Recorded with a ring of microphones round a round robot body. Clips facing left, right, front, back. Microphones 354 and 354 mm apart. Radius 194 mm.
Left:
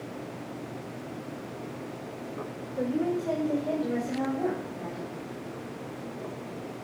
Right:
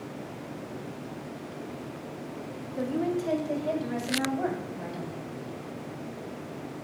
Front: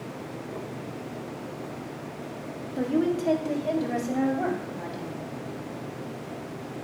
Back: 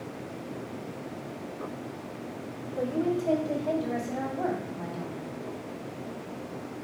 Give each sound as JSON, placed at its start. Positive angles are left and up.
{"t": 2.8, "sound": "a woman speaking", "azimuth_deg": -25, "distance_m": 1.6}